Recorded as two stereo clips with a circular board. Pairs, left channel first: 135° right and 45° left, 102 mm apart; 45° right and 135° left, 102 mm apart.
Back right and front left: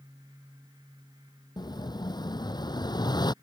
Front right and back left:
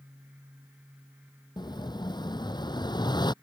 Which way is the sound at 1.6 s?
90° right.